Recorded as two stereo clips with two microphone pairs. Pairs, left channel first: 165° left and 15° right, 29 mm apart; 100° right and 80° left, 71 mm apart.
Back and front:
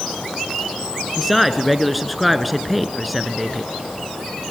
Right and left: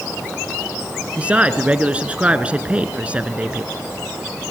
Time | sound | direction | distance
1.2 | a man speaking | 70° left | 1.6 m